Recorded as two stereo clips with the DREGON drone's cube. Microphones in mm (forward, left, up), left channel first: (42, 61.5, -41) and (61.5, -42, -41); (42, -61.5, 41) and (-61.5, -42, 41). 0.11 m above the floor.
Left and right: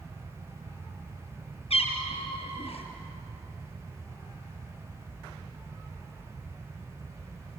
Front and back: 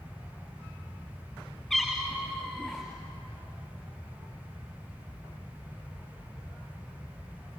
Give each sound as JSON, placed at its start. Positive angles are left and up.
{"t": 1.7, "sound": "a cat meowing", "azimuth_deg": 75, "distance_m": 5.5}